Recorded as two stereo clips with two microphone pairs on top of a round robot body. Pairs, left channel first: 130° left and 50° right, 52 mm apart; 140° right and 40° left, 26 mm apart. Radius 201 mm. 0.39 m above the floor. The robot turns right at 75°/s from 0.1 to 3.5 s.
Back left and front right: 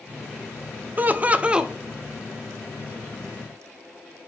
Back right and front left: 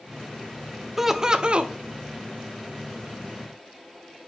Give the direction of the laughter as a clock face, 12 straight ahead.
2 o'clock.